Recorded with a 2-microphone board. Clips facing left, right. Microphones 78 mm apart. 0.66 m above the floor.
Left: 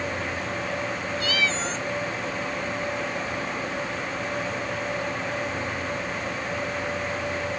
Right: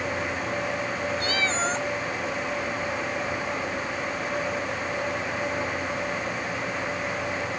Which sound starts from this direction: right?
A cat meowing, at 1.2 s.